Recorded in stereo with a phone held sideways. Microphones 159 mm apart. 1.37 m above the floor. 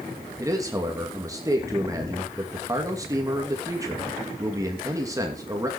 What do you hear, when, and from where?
0.4 s a man speaking: 20° right (ahead or behind), 2.5 m